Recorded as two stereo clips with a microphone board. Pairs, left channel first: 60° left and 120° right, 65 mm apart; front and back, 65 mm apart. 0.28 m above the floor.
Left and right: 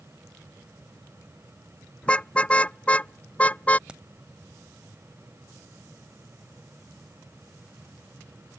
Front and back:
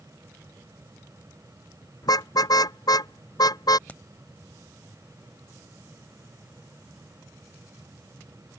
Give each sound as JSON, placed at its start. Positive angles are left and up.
{"t": 2.0, "sound": "a car horn", "azimuth_deg": -10}
{"t": 3.9, "sound": "a crack", "azimuth_deg": -50}